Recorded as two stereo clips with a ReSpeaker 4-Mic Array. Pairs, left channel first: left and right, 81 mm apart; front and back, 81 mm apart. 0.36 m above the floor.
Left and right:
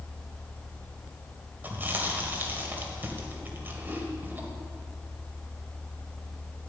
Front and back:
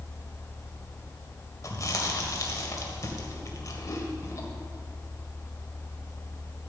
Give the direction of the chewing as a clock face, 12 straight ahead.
1 o'clock.